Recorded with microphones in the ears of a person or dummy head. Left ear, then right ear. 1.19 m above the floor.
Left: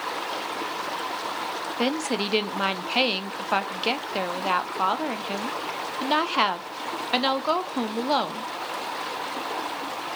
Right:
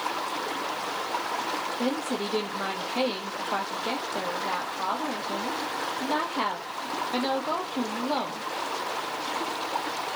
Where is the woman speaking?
70° left (ahead or behind), 0.6 m.